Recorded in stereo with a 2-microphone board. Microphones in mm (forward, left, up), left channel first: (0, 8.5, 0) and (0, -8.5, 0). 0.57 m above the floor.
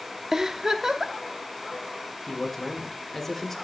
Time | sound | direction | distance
0.3 | a giggle | 30° right (ahead or behind) | 0.8 m
2.3 | a man speaking | 20° left (ahead or behind) | 1.8 m